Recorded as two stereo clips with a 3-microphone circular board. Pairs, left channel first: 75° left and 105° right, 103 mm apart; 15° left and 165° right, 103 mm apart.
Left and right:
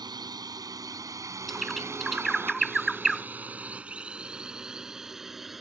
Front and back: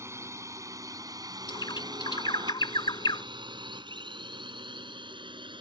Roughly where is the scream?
No scream in this recording.